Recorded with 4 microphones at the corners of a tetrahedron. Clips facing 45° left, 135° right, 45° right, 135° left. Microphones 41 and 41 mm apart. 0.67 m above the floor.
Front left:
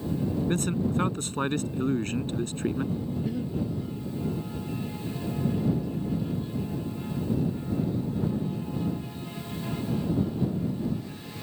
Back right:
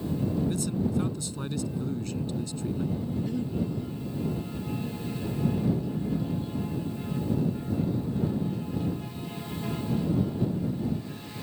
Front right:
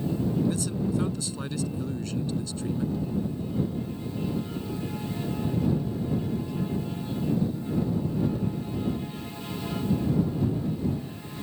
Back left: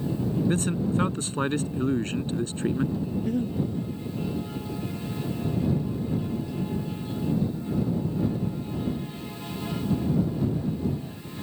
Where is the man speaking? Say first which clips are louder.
Front left 2 dB, back left 2 dB; 90° left.